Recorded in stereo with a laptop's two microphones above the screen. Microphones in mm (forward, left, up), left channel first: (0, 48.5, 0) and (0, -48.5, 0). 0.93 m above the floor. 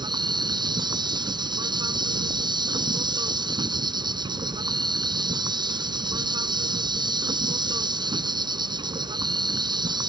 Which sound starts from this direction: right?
An insect, at 0.0 s.